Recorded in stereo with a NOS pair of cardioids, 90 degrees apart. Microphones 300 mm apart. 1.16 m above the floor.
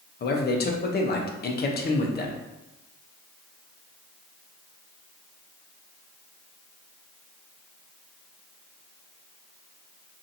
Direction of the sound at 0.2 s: 30° left.